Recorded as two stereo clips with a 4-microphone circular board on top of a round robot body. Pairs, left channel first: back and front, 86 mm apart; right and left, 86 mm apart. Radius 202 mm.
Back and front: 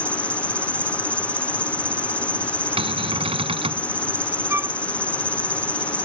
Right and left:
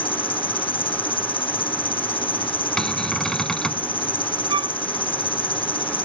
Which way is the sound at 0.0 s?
105° right.